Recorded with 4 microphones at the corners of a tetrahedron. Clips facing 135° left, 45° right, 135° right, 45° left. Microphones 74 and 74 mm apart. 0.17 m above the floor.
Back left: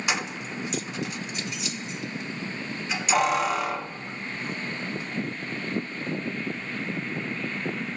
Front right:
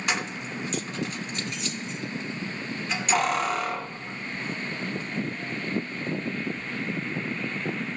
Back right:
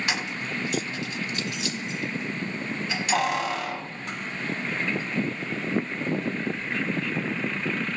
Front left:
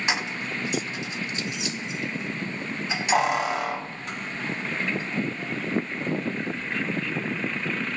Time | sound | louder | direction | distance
0.1 | keys jangling | front right 1 dB, front left 1 dB | 60° left | 0.8 m